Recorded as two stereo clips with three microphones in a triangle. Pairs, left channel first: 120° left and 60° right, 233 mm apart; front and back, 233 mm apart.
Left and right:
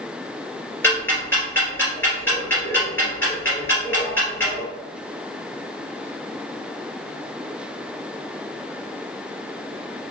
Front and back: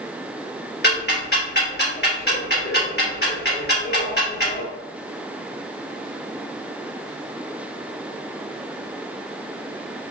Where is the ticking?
40° left, 1.6 m.